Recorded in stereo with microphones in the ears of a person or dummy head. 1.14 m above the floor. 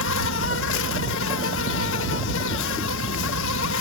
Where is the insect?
70° left (ahead or behind).